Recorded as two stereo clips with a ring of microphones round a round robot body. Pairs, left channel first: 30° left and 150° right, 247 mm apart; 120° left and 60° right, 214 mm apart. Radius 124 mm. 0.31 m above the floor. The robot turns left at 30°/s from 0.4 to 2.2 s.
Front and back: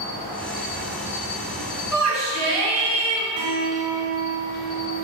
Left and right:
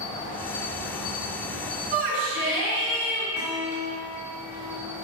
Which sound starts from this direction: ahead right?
A shout, at 1.9 s.